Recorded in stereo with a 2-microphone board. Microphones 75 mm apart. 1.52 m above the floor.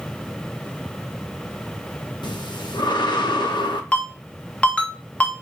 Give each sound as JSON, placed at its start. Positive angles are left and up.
{"t": 2.2, "sound": "breathing", "side_deg": 85, "distance_m": 0.7}
{"t": 3.9, "sound": "a ringtone", "side_deg": 15, "distance_m": 1.0}